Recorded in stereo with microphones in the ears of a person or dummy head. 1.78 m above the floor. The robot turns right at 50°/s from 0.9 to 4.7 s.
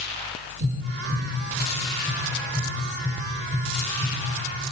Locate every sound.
0.6 s tapping: 65° right (ahead or behind), 1.9 m; by 4.2 s 80° left, 1.9 m